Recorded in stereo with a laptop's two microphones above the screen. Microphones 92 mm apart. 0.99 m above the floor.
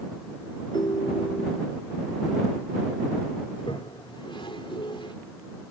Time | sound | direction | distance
0.7 | a ringtone | 55° left (ahead or behind) | ?
3.5 | a toilet flushing | 70° left (ahead or behind) | ?